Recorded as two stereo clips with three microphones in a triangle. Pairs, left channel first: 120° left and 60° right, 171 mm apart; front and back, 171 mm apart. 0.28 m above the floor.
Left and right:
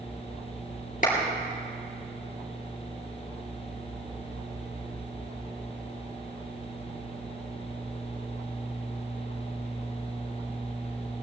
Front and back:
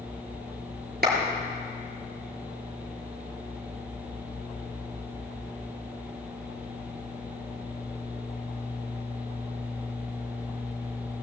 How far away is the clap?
About 3.5 m.